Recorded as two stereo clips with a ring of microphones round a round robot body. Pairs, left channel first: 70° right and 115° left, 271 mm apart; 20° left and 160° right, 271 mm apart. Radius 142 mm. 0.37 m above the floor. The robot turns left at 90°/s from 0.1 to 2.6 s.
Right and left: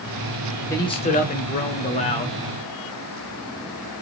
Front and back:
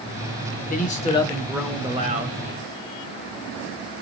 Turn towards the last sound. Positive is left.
turn(degrees=-165)